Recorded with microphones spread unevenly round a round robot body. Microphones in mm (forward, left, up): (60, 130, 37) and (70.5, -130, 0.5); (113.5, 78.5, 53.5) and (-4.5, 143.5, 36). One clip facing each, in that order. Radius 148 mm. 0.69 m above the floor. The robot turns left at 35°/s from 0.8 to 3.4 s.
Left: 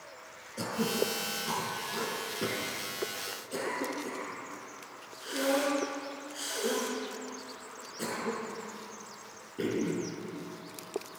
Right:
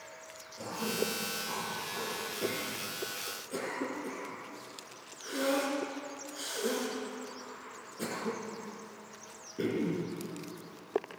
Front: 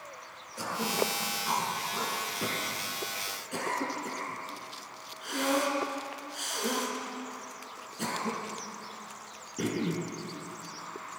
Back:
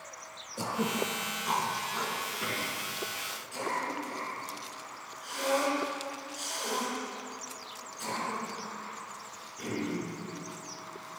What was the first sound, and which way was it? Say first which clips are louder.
Throat clearing: left 4 dB, even; 85° left.